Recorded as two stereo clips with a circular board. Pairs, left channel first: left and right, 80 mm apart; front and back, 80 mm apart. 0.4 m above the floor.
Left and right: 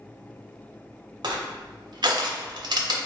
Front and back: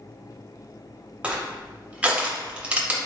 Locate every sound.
1.2 s crushing: 105° right, 0.6 m